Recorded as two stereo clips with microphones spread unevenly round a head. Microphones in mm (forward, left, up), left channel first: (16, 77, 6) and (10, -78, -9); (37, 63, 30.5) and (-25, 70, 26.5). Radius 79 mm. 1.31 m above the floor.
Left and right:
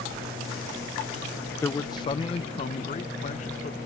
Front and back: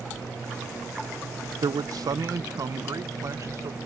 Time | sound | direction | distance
1.6 | a man speaking | 165° left | ?